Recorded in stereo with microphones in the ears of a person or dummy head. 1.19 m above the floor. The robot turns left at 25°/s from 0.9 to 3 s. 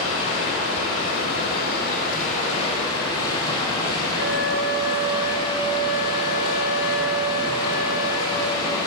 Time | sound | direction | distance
0.0 | running water | 70° left | 6 m
4.2 | a flute | 60° right (ahead or behind) | 1.9 m